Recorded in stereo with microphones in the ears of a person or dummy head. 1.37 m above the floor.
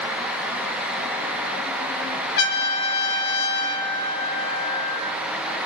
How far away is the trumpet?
About 0.9 m.